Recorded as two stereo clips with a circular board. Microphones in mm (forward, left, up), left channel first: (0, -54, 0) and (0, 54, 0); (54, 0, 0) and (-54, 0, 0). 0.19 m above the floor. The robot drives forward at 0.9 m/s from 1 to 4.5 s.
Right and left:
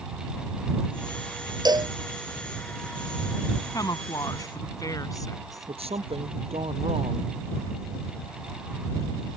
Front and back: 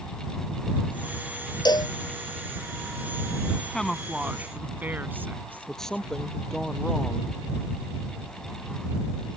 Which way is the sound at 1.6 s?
45° left.